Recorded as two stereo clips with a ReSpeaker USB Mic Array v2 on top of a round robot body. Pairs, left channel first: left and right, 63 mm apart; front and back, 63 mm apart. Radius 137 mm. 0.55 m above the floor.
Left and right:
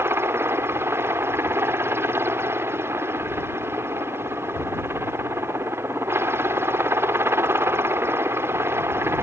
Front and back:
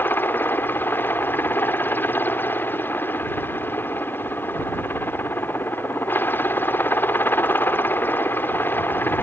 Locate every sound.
0.0 s a helicopter: 50° right